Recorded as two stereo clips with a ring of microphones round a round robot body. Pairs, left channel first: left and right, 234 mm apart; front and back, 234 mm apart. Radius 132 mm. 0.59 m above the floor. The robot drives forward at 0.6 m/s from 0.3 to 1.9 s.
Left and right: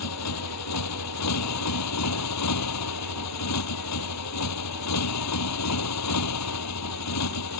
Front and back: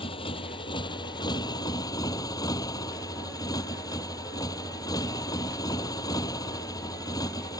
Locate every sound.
0.0 s a motorcycle: 70° left; by 7.6 s 75° left